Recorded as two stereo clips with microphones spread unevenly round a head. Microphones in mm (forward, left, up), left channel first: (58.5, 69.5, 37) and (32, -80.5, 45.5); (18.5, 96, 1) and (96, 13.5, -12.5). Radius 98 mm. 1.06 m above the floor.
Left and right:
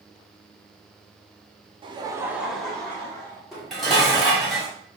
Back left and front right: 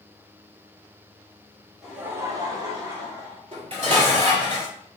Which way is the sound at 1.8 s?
120° right.